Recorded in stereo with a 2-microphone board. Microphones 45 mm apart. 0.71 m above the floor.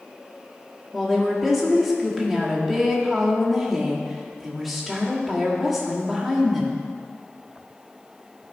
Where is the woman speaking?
Centre (ahead or behind), 1.8 m.